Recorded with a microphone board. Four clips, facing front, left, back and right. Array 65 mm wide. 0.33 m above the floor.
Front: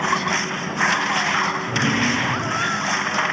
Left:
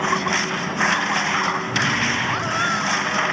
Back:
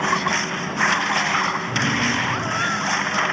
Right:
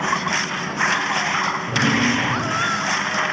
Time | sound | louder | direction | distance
1.7 | a drawer | right 2 dB, front 1 dB | 65° right | 3.5 m